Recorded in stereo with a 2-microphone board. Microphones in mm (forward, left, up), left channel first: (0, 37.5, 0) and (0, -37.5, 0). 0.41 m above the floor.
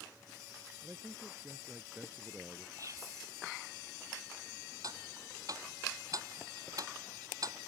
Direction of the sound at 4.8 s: 50° right (ahead or behind).